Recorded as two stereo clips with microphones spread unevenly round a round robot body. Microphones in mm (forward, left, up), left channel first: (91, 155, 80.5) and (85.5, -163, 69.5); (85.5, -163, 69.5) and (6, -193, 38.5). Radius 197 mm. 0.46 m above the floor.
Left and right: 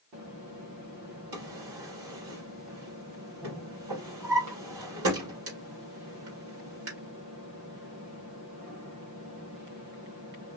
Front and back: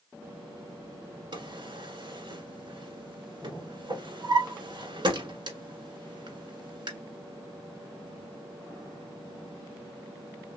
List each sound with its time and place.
1.3 s a drawer: 125° right, 1.7 m